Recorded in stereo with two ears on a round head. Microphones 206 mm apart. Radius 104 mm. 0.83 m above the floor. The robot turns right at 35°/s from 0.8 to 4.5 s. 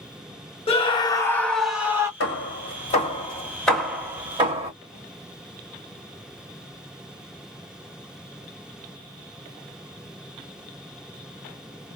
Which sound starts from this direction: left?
Hammering, at 2.2 s.